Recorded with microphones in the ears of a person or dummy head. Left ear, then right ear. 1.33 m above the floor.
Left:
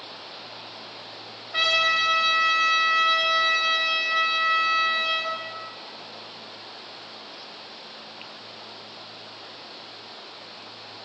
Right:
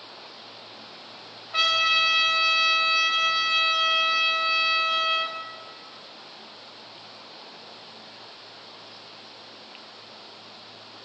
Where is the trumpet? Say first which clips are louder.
Even; 20° right (ahead or behind), 1.4 m.